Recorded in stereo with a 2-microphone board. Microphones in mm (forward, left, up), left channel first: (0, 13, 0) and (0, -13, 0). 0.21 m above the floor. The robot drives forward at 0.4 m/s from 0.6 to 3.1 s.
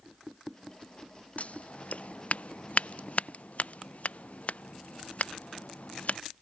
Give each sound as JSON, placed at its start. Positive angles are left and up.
{"t": 1.4, "sound": "scissors", "side_deg": 50}